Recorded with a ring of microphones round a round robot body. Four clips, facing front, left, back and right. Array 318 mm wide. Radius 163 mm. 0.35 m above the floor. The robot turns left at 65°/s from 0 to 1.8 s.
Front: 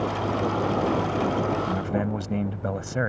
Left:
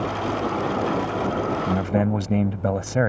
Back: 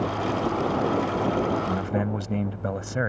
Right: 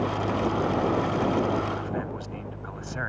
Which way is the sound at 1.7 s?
100° left.